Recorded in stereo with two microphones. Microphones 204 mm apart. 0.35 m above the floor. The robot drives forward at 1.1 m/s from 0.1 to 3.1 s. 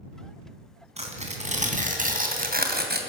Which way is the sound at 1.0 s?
30° right (ahead or behind).